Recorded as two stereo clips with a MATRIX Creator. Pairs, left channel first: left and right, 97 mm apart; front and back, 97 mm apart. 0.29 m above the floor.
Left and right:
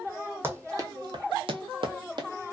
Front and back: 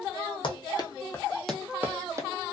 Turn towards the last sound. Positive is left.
turn(degrees=-125)